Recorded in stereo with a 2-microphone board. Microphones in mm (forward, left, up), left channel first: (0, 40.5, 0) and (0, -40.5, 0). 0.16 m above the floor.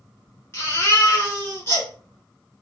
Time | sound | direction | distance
0.5 | a baby crying | 30° left (ahead or behind) | 1.3 m